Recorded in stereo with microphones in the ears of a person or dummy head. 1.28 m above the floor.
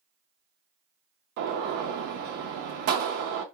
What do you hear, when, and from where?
1.4 s a gunshot: 60° right (ahead or behind), 0.6 m